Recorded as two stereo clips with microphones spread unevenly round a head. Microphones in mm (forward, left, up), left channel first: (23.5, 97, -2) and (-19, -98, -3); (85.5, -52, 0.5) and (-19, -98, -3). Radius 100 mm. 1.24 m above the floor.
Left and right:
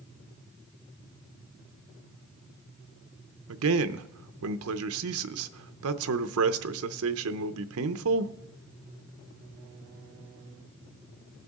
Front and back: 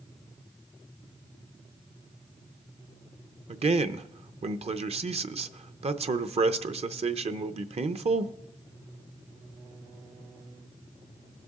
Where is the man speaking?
120° right, 0.7 m.